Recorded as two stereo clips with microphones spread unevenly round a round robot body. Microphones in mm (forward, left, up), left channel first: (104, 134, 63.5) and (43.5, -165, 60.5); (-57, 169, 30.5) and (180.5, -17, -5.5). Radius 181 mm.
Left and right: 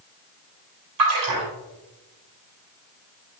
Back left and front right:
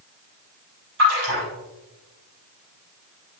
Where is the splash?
95° right, 4 m.